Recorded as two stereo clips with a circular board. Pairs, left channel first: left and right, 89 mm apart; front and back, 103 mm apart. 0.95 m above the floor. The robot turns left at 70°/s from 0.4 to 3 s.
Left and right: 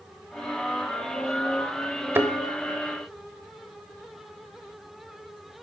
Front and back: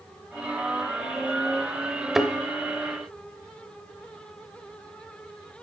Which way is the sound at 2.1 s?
100° right.